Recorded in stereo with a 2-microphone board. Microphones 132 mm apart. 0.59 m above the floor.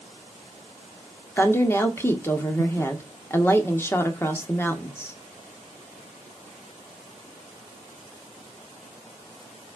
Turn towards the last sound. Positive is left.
turn(degrees=20)  # may be behind; listen again after turning